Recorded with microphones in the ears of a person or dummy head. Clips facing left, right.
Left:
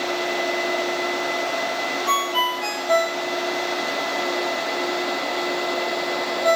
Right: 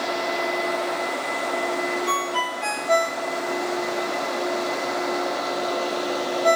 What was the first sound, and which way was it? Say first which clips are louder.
A ringtone: left 1 dB; 15° left (ahead or behind).